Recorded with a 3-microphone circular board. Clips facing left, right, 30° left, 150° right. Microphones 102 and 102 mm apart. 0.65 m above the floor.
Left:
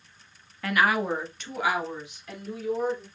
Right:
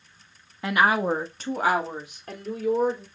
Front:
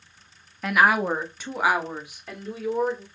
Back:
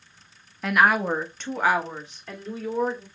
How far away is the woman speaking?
About 0.7 m.